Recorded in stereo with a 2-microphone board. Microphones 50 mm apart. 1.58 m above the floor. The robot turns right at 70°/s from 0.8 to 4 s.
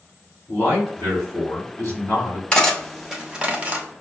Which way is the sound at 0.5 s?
55° left.